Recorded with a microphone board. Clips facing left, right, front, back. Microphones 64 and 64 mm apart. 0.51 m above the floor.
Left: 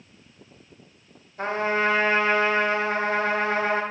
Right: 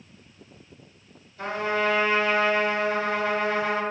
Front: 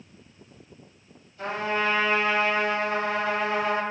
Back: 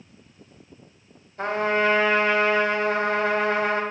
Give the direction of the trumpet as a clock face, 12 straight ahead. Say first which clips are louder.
Left 2 dB, back 5 dB; 7 o'clock.